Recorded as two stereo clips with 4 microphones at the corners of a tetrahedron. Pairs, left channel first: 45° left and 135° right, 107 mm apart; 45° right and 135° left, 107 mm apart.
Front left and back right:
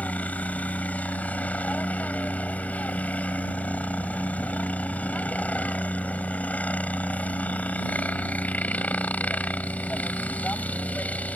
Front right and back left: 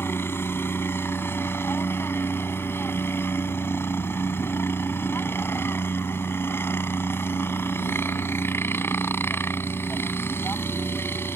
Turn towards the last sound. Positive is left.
turn(degrees=-10)